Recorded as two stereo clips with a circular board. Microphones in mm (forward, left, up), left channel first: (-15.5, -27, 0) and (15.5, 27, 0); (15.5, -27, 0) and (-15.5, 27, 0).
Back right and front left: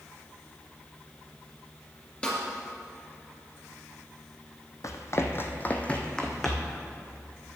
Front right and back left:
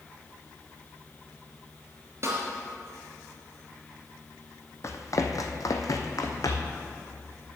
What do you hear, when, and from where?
2.2 s a snare drum: 165° left, 2.5 m
4.8 s running footsteps: 95° right, 1.0 m; by 6.8 s 30° right, 1.5 m